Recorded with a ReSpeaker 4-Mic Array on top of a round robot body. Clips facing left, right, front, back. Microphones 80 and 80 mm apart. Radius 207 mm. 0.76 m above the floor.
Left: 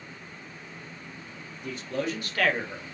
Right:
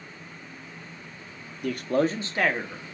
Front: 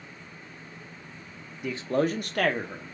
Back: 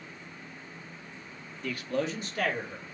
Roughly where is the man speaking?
Right.